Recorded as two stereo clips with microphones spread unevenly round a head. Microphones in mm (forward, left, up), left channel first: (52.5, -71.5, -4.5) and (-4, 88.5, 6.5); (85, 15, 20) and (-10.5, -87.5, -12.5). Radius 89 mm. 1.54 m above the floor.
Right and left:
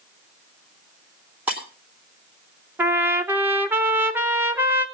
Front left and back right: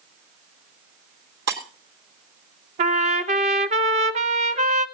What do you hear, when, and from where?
1.5 s breaking glass: 170° right, 2.5 m
2.8 s a trumpet: straight behind, 0.8 m